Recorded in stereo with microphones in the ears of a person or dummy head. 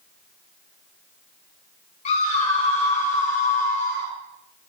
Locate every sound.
2.0 s a scream: 40° left (ahead or behind), 8 m; by 4.1 s 50° left (ahead or behind), 9.5 m